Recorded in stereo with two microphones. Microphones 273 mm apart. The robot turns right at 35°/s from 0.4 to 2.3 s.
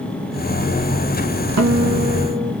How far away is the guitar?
About 0.8 m.